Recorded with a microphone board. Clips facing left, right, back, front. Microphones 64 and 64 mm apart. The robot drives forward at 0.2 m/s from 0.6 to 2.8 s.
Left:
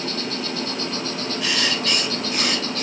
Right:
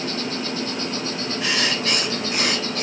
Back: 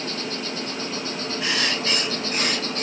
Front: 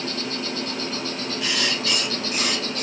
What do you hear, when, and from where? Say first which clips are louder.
0.0 s an insect: right 1 dB, front 1 dB; 115° right, 1.1 m; by 2.8 s 150° right, 1.3 m
1.4 s writing: right 1 dB, back 1 dB; 140° right, 0.9 m; by 2.8 s 155° right, 1.1 m